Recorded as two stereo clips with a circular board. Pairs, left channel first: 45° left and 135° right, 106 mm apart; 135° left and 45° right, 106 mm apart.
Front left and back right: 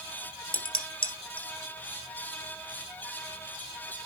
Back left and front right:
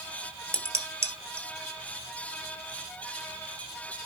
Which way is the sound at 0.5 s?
20° left.